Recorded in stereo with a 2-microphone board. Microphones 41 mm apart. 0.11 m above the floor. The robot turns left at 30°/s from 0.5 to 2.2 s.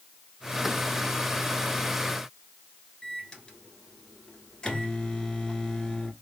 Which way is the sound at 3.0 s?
15° left (ahead or behind).